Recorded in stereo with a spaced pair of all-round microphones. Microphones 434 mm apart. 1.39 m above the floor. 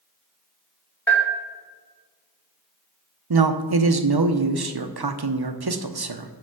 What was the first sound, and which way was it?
A bell, 5° left (ahead or behind).